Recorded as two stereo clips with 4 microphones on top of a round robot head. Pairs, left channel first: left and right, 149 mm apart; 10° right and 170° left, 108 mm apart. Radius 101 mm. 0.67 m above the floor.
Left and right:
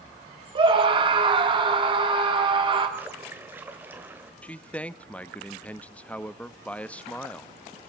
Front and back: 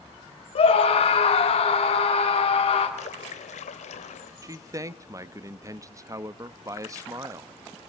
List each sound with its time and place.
0.6 s a scream: 35° right, 1.5 m
3.0 s a splash: 10° right, 1.9 m
4.4 s a man speaking: 160° left, 0.8 m